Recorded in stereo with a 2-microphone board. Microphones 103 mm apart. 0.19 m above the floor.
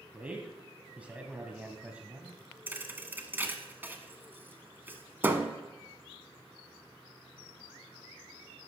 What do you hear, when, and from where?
0.1 s a man speaking: 15° right (ahead or behind), 1.0 m
2.7 s a thud: 20° right (ahead or behind), 0.8 m